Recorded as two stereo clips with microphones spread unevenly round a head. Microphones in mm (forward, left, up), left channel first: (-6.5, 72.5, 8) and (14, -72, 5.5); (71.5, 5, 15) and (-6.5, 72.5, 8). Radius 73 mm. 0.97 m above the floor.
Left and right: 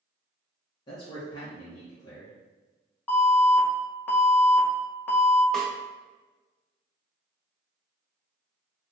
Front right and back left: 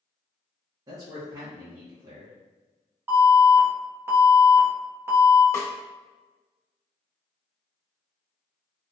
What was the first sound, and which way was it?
A man speaking, 140° left.